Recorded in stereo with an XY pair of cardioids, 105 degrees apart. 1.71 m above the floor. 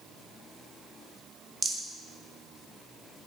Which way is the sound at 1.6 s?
25° right.